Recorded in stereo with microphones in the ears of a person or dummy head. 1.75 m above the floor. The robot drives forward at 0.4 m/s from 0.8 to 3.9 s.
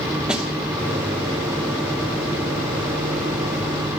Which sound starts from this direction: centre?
A snare drum, at 0.3 s.